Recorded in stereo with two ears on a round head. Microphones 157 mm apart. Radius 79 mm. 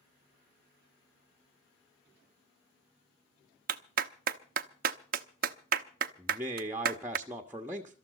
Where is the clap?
50° right (ahead or behind), 0.8 m.